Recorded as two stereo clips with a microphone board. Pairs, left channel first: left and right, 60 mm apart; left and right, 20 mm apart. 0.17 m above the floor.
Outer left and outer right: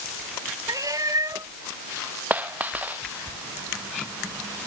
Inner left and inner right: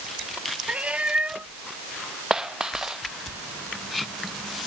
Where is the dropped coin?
25° right (ahead or behind).